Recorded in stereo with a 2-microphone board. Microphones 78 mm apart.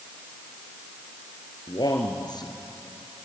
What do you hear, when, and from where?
1.7 s a man speaking: 65° left (ahead or behind), 2.5 m